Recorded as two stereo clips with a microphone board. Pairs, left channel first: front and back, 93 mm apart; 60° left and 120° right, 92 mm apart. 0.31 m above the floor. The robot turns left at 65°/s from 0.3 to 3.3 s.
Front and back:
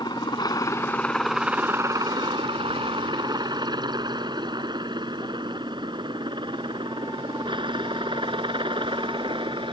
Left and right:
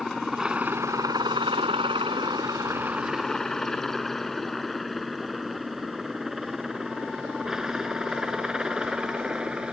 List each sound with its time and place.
0.0 s a helicopter: 30° right; by 9.7 s 160° left